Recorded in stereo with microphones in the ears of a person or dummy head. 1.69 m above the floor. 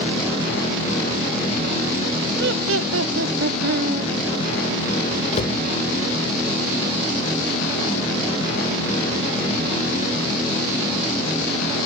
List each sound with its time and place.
2.4 s laughter: 60° right (ahead or behind), 0.9 m; by 4.1 s 50° right (ahead or behind), 1.9 m
5.3 s a cupboard door: 40° left (ahead or behind), 2.5 m